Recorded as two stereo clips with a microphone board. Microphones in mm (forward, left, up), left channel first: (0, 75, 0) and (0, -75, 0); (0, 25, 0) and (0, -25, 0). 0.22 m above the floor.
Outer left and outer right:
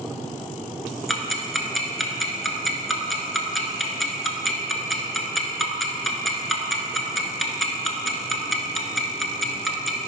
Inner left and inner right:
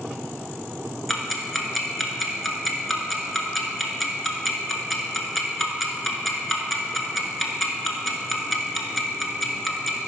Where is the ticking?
Centre (ahead or behind), 1.1 m.